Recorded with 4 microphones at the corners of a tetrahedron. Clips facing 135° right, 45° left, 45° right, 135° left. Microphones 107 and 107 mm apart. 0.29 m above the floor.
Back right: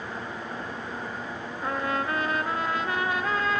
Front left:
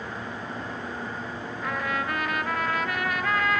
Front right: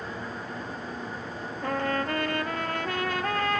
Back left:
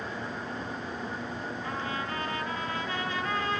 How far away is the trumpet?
About 1.3 m.